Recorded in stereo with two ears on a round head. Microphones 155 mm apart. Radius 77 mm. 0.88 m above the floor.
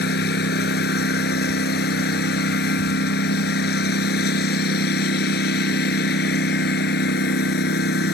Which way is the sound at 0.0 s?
65° left (ahead or behind).